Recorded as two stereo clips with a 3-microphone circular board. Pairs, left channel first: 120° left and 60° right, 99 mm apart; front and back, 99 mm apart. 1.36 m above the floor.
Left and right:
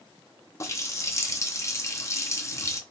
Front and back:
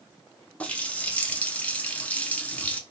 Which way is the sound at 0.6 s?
70° left.